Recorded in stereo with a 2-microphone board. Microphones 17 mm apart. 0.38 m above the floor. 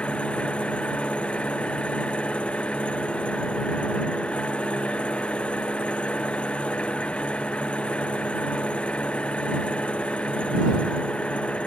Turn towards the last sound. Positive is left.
turn(degrees=85)